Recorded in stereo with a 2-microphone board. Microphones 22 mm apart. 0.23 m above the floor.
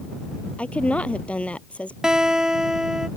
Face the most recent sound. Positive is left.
turn(degrees=-35)  # may be behind; listen again after turning